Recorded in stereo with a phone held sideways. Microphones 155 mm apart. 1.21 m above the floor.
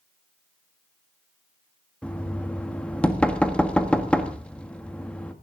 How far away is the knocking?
About 1.5 m.